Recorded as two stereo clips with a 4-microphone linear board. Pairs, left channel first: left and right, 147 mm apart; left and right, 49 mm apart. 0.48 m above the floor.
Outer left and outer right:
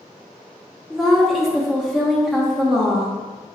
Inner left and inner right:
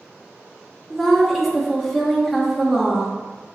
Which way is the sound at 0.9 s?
Centre (ahead or behind).